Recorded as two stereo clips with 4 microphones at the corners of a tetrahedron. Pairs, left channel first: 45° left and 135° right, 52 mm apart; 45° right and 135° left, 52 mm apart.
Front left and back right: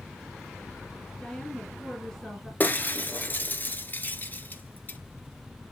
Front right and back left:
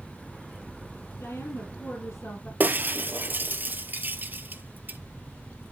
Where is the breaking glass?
90° left, 1.0 m.